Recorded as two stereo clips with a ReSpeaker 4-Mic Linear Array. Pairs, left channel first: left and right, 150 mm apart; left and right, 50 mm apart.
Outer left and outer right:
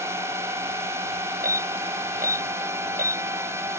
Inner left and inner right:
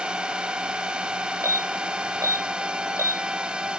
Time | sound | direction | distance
0.0 | a drone | 15° right (ahead or behind) | ?
1.4 | an alarm | 75° right (ahead or behind) | ?